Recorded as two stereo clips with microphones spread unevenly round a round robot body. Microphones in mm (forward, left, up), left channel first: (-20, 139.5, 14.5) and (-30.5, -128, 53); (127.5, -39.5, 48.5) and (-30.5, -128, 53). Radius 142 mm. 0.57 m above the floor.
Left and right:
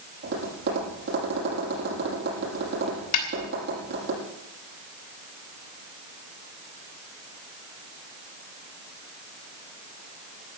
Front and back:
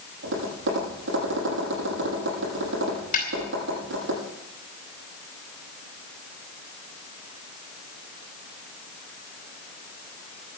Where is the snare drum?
80° left, 3 m.